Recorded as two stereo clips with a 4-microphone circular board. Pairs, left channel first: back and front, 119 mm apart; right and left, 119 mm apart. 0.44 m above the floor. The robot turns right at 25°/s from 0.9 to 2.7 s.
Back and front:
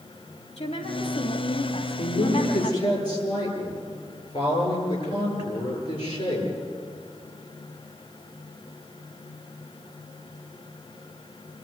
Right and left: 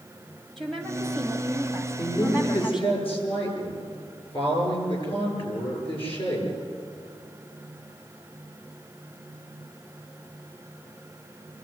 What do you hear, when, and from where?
0.6 s a woman speaking: straight behind, 3 m; by 3.0 s 135° right, 3 m
2.0 s a woman speaking: 145° right, 9.5 m; by 6.5 s 130° right, 9.5 m